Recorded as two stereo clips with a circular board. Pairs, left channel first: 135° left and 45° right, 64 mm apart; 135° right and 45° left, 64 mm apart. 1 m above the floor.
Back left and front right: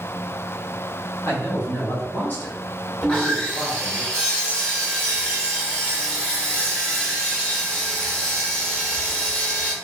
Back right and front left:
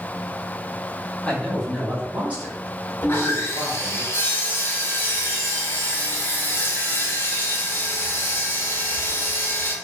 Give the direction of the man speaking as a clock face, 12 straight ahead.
7 o'clock.